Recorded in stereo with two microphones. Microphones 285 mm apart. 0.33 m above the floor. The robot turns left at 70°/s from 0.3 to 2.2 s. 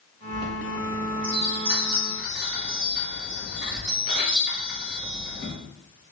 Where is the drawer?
I don't hear a drawer.